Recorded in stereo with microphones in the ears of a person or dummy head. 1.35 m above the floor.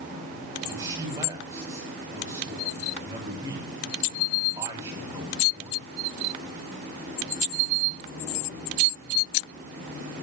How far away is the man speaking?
About 9 m.